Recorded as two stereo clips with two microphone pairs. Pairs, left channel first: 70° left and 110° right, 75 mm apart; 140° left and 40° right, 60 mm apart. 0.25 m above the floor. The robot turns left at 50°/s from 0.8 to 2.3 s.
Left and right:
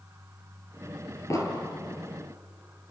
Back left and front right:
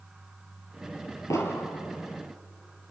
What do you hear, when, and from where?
1.3 s an explosion: 115° left, 3.5 m; by 1.7 s 100° left, 3.5 m